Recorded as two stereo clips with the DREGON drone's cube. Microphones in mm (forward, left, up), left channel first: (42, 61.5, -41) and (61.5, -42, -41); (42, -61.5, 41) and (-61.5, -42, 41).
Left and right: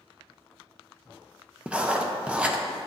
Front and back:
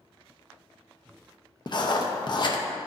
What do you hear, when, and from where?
1.7 s writing: straight ahead, 0.7 m